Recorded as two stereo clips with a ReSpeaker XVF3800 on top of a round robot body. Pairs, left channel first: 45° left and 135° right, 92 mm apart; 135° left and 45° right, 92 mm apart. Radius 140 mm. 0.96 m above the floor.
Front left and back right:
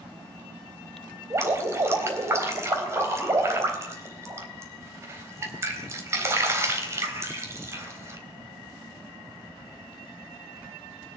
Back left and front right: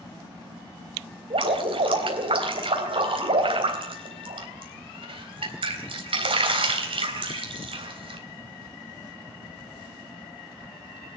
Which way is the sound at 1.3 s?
75° right.